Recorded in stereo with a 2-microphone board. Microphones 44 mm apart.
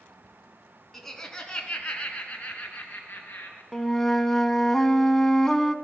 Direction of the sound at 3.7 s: 10° left (ahead or behind).